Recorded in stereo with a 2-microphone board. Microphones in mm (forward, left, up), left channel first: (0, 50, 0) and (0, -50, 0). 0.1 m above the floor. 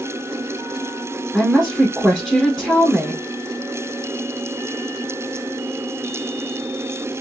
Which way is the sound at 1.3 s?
5° right (ahead or behind).